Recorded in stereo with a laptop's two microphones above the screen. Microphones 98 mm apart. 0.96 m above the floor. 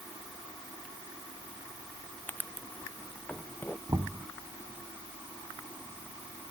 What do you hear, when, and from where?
2.3 s writing: 15° left (ahead or behind)
3.9 s knocking: 40° right (ahead or behind)